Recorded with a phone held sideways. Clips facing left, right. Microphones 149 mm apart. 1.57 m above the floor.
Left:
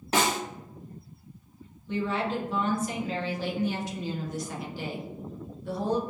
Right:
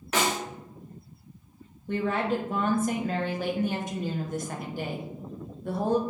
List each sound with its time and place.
0.1 s a snare drum: 30° left (ahead or behind), 1.1 m
1.9 s a woman speaking: 50° right (ahead or behind), 0.8 m